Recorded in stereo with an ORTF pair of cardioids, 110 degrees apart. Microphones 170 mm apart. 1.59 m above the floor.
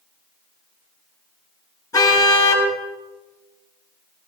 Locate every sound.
1.9 s a car horn: 25° left, 8.5 m